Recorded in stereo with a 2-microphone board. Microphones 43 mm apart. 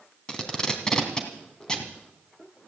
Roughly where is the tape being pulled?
Centre.